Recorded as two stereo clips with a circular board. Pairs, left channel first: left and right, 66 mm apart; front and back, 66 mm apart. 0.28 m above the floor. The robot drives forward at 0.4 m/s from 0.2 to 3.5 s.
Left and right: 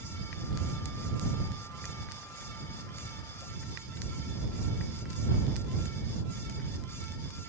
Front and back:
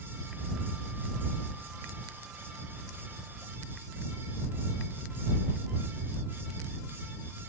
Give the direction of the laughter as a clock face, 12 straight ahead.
No laughter in this recording.